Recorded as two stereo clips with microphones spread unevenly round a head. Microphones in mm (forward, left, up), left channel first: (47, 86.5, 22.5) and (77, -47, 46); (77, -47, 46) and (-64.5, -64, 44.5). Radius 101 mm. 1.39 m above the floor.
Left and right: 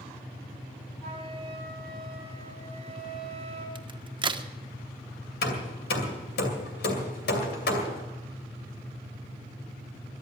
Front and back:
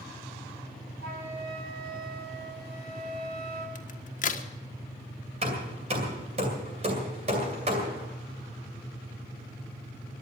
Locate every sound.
1.0 s a flute: 175° right, 6 m
3.8 s a crack: 20° right, 1.4 m
5.4 s hammering: 130° left, 2.5 m